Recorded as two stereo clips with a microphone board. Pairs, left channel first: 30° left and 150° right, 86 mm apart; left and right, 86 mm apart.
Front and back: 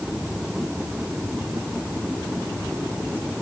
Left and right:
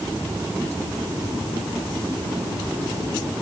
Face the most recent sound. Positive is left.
No sound to turn to.